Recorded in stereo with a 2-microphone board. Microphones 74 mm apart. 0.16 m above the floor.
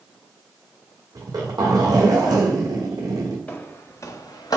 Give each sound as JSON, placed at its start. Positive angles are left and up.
{"t": 1.1, "sound": "a zipper", "side_deg": -55, "distance_m": 1.6}
{"t": 3.5, "sound": "footsteps", "side_deg": 20, "distance_m": 0.7}